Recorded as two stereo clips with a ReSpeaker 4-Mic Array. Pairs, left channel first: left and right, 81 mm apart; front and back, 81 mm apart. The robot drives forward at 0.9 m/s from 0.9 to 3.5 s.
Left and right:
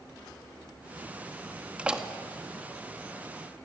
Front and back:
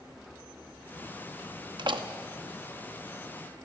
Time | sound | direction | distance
1.8 | a door slam | 165° right | 1.0 m